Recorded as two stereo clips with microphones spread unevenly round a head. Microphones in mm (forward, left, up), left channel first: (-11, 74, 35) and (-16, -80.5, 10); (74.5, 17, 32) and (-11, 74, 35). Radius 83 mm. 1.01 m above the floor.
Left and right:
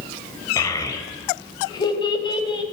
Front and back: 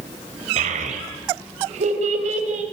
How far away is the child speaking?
About 4 m.